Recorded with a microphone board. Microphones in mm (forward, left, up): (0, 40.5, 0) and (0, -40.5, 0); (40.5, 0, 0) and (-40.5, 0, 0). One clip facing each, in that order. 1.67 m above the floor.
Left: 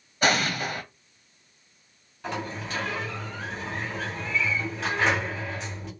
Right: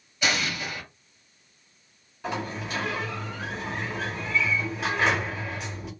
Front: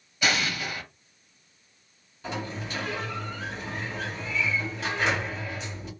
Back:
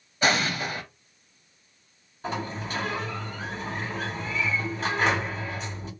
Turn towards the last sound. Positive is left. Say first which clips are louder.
# right 1 dB, back 2 dB
turn(degrees=-165)